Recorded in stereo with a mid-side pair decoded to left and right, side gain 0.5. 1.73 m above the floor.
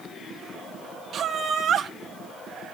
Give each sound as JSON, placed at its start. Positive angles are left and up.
{"t": 1.1, "sound": "laughter", "azimuth_deg": -55, "distance_m": 1.6}